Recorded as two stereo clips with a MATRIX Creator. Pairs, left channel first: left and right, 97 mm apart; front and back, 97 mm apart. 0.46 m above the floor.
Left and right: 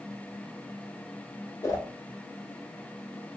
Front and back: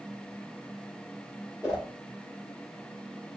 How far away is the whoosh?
About 1.1 m.